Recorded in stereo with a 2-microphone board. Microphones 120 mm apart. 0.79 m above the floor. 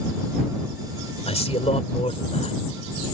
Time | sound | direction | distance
1.3 | a man speaking | 65° left (ahead or behind) | ?